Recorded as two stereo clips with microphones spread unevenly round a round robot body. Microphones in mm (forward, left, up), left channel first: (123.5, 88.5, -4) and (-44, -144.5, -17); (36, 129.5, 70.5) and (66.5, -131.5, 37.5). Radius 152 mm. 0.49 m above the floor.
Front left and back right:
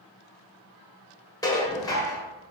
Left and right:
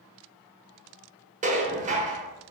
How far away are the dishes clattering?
About 1.0 m.